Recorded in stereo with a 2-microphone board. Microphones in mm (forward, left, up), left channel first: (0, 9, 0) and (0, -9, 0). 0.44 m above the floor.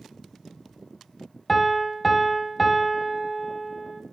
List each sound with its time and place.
1.5 s a piano: 5° left (ahead or behind), 1.6 m